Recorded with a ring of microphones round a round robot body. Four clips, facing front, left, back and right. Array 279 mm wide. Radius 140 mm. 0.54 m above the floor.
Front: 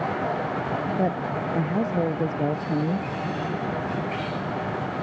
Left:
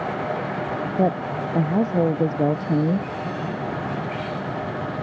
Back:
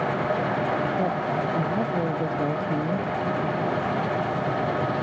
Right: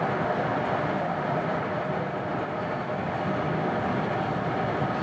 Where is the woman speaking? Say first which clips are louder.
Left 5 dB, back 1 dB; 85° left.